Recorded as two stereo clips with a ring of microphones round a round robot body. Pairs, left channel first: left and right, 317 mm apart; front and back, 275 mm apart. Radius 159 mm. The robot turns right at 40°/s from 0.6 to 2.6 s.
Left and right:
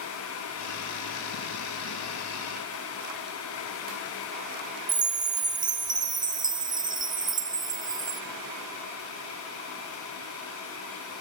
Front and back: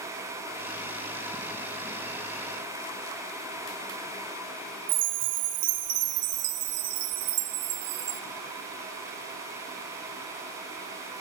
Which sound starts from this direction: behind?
A chime, at 4.9 s.